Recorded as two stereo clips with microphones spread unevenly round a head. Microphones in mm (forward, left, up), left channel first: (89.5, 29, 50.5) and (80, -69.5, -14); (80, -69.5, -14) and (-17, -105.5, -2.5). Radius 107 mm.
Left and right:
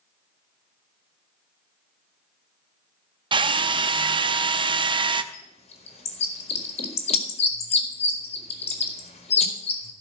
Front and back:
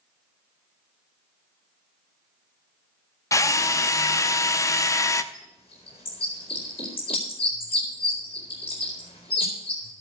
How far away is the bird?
About 1.8 m.